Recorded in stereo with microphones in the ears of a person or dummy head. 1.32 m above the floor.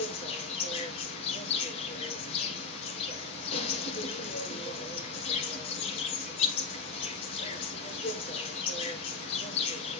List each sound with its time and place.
0.0 s an insect: 40° left (ahead or behind), 1.5 m